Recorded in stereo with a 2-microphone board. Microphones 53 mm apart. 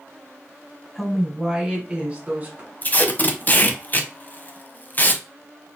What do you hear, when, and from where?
0.9 s a woman speaking: centre (ahead or behind), 1.7 m; by 2.7 s 35° right (ahead or behind), 1.9 m
2.8 s tape being pulled: 35° left (ahead or behind), 0.7 m